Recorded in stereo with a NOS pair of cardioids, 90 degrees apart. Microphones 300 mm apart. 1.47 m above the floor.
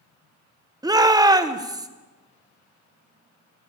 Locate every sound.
0.8 s a shout: 15° right, 1.3 m